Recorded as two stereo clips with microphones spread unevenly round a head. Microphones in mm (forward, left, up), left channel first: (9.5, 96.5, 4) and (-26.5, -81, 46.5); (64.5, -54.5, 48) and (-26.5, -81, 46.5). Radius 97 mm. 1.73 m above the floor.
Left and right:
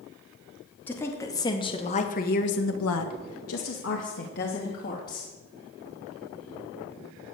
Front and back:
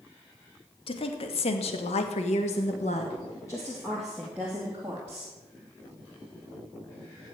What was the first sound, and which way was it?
A woman speaking, 5° right.